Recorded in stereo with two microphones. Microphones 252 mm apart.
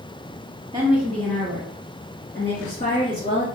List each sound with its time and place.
0.7 s a woman speaking: 15° right (ahead or behind), 0.8 m; by 3.5 s 35° left (ahead or behind), 2.5 m